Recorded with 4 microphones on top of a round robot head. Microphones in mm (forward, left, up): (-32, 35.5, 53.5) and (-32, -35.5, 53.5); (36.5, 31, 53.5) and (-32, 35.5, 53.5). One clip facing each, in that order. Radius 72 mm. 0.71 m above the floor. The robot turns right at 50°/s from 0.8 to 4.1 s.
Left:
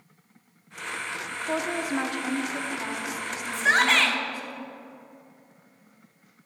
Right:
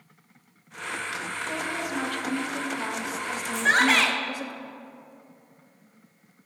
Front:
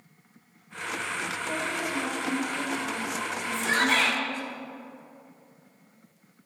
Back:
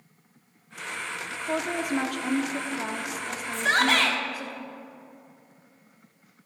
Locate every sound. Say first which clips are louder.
1.3 s a woman speaking: left 5 dB, back 6 dB; 120° left, 1.1 m; by 4.5 s 105° right, 1.1 m
3.5 s a shout: even, back 2 dB; 165° left, 1.8 m; by 4.2 s 165° right, 1.8 m